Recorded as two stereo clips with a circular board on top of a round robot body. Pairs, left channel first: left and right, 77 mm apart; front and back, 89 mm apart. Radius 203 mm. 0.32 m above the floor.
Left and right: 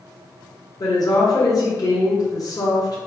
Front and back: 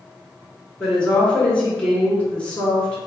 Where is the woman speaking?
75° left, 1.9 m.